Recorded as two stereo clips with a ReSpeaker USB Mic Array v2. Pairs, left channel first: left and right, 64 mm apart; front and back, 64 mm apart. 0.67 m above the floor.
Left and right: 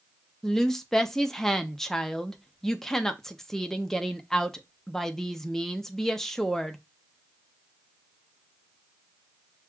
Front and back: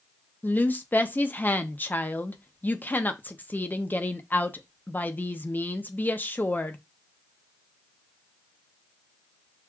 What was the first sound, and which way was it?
A woman speaking, 10° left.